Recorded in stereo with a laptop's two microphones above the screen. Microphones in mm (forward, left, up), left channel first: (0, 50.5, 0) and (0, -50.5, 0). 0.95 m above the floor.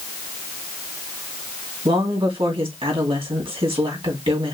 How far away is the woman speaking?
About 2 m.